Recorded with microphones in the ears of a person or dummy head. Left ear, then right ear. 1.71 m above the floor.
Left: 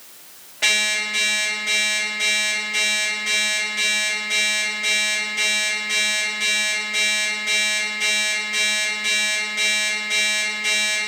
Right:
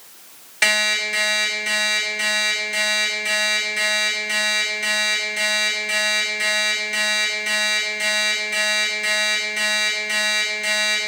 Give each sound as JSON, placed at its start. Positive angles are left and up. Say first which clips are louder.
{"t": 0.6, "sound": "an alarm clock", "louder": "right 1 dB", "side_deg": -60, "distance_m": 1.9}